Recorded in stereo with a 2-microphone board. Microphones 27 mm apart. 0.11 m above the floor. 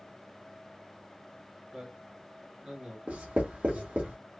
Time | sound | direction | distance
1.7 | a man speaking | 30° right (ahead or behind) | 1.5 m
3.1 | writing | 50° right (ahead or behind) | 2 m